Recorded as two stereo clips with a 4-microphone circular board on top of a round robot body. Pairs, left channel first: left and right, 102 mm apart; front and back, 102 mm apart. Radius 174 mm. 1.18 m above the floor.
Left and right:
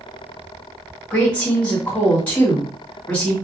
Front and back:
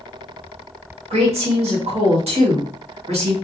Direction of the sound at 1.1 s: 165° left.